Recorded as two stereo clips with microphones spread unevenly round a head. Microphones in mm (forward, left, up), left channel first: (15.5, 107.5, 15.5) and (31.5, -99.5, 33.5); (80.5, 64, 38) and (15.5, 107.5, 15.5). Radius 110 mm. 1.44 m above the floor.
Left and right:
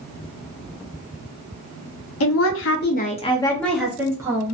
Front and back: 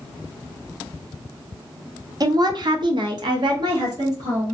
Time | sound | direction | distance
2.2 | a woman speaking | 110° left | 0.7 m